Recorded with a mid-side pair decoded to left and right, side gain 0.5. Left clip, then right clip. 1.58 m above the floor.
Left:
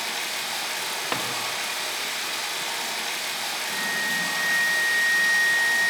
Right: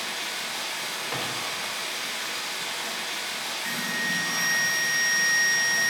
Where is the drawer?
65° left, 2.5 m.